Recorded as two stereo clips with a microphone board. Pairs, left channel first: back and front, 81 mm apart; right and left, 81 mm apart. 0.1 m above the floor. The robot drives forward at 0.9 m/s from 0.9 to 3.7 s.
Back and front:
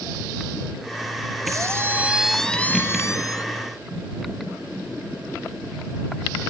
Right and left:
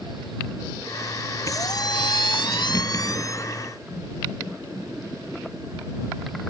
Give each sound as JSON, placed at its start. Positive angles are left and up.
{"t": 1.4, "sound": "a squeak", "azimuth_deg": -45}